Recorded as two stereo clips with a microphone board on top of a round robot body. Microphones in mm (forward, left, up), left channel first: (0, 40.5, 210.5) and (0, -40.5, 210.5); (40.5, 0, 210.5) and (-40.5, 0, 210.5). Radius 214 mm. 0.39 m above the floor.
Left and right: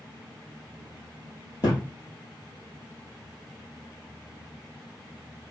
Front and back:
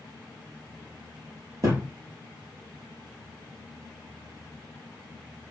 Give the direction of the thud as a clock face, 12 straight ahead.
8 o'clock.